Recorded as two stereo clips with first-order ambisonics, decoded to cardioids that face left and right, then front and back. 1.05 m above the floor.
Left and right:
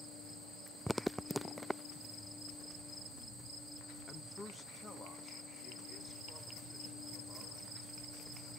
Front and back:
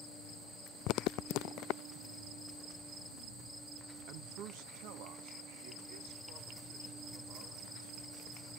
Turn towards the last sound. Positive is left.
turn(degrees=170)